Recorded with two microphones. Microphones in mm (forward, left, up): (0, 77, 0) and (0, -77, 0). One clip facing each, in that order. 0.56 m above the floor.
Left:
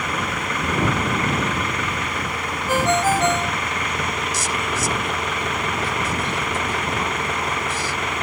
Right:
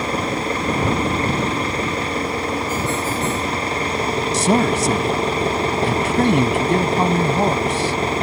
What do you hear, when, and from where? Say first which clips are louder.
0.0 s an engine running: right 5 dB; 30° right (ahead or behind)
2.7 s a ringtone: left 3 dB; 75° left (ahead or behind)
4.3 s a man speaking: right 9 dB; 70° right (ahead or behind)